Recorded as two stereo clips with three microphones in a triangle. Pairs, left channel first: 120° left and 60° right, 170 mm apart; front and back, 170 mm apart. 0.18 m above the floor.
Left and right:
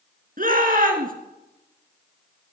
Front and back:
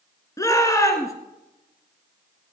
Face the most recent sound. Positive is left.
turn(degrees=-65)